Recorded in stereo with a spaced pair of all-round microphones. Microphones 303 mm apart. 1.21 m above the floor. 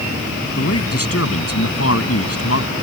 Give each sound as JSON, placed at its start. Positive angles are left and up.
{"t": 0.6, "sound": "a man speaking", "side_deg": 50}